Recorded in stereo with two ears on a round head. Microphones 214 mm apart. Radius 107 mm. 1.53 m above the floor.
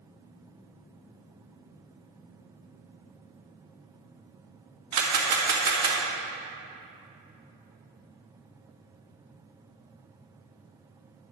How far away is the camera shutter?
About 1.9 m.